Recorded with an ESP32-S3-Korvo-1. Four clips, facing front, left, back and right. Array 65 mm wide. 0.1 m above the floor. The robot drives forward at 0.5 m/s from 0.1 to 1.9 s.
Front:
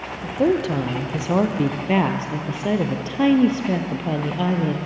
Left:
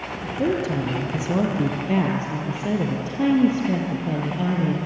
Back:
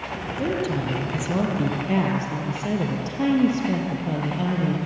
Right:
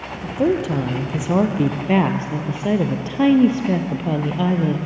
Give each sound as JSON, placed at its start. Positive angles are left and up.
{"t": 0.2, "sound": "a woman speaking", "azimuth_deg": -40, "distance_m": 2.5}